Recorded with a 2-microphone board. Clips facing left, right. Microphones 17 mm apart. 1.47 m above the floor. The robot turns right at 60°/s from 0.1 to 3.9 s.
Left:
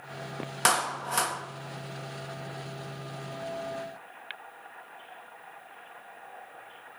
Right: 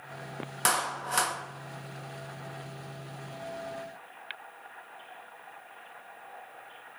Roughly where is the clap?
Behind left.